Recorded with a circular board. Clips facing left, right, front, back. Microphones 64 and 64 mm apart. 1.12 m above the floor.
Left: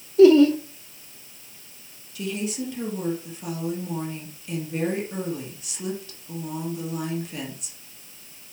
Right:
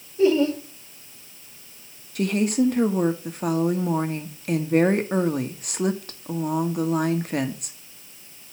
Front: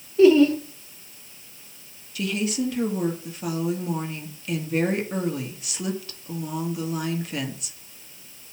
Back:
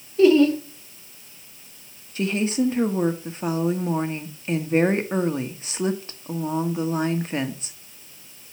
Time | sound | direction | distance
0.2 | laughter | 90° left | 3.5 m
2.1 | a woman speaking | 125° right | 1.4 m